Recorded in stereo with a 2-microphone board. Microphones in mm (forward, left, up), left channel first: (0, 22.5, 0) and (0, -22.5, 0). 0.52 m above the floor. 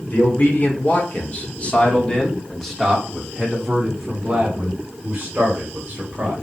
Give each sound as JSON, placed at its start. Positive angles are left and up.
{"t": 0.1, "sound": "a man speaking", "side_deg": 50, "distance_m": 1.8}